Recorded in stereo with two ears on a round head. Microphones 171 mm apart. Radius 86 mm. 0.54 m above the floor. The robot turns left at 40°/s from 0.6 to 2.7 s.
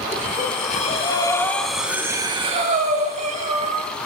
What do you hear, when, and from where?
0.1 s breathing: 45° left, 2.5 m; by 3.9 s 40° right, 2.5 m